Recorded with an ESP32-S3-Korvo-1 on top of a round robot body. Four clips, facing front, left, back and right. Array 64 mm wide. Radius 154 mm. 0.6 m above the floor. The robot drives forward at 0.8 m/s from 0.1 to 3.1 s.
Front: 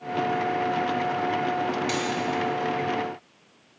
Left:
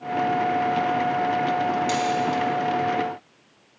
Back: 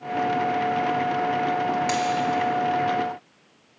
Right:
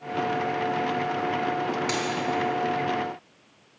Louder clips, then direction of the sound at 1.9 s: Left 4 dB, back 4 dB; 160° right.